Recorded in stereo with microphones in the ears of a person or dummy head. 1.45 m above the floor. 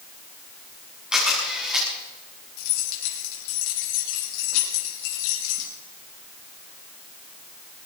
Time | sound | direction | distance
1.1 | a camera shutter | centre (ahead or behind) | 7 m
2.6 | keys jangling | 85° left | 5.5 m